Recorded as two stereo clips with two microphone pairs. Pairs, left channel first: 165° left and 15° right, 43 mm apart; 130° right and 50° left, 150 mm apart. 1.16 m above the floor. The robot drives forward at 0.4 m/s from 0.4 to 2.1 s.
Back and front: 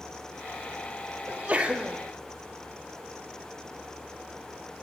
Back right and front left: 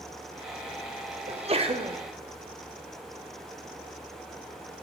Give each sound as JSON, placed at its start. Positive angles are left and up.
{"t": 1.3, "sound": "a sneeze", "azimuth_deg": 25, "distance_m": 0.7}